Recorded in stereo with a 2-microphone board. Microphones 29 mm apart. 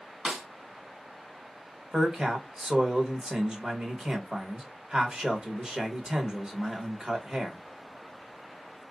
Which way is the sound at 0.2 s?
35° right (ahead or behind).